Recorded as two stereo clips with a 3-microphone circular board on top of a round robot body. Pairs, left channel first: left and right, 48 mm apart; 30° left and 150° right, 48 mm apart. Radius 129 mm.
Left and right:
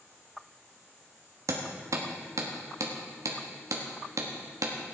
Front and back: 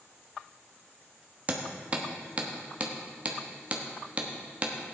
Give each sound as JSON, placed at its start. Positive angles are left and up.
{"t": 1.5, "sound": "hammering", "azimuth_deg": -85, "distance_m": 1.2}